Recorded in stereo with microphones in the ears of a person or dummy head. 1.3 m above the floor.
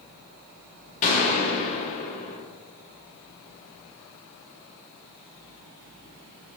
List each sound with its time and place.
1.0 s a gunshot: 40° left (ahead or behind), 1.4 m